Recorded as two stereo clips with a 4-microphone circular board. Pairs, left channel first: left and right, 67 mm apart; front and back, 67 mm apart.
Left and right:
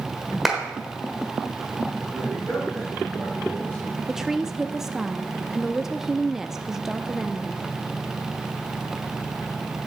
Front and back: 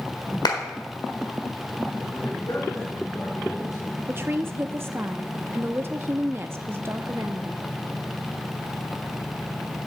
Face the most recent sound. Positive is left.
turn(degrees=-170)